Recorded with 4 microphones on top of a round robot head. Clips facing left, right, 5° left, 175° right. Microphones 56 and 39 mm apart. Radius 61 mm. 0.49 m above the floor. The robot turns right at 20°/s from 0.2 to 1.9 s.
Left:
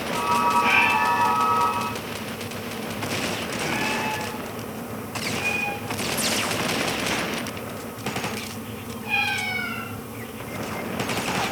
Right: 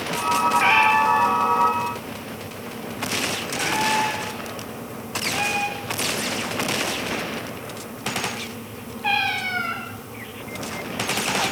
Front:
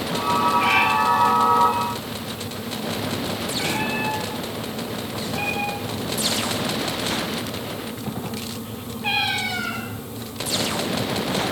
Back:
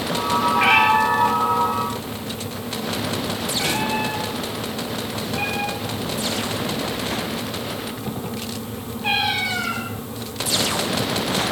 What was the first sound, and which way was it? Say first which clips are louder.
A cat meowing: right 3 dB, back 6 dB; 115° right.